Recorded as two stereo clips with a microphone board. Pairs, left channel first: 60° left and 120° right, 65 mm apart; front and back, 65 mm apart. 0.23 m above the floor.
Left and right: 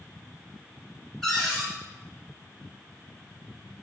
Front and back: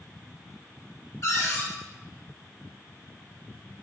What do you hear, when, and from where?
1.2 s a cupboard door: 25° right, 0.9 m